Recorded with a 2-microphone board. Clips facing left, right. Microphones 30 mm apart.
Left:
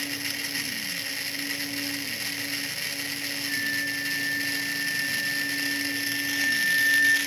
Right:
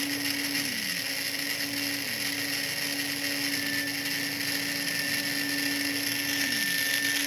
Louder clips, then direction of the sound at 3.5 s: Left 3 dB; 35° left (ahead or behind).